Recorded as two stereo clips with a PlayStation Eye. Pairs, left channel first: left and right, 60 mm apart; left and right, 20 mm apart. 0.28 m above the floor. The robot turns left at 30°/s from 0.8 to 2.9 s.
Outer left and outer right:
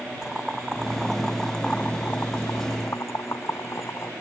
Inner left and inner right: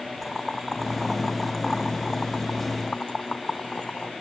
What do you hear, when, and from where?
0.2 s boiling: 10° right (ahead or behind); by 4.1 s 55° left (ahead or behind)